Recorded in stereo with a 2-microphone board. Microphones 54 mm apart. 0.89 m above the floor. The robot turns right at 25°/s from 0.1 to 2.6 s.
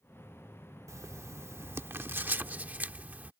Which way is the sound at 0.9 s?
75° right.